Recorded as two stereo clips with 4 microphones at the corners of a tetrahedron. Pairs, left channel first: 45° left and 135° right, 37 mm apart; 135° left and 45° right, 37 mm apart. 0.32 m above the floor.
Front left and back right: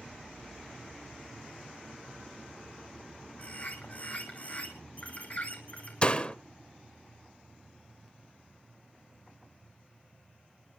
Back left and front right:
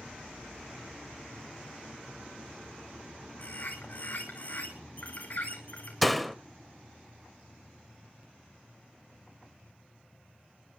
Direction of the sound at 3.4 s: 90° left.